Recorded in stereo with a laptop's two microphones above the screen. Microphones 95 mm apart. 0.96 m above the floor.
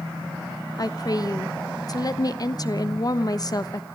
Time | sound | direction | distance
0.8 | a woman speaking | 40° left (ahead or behind) | 0.9 m